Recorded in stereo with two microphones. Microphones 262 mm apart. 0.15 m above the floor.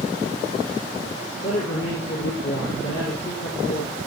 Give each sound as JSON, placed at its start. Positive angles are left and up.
{"t": 1.4, "sound": "a man speaking", "side_deg": 65, "distance_m": 5.0}